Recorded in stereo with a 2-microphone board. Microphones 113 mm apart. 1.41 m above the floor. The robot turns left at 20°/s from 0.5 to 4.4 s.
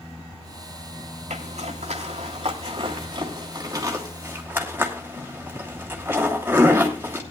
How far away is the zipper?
About 2.5 m.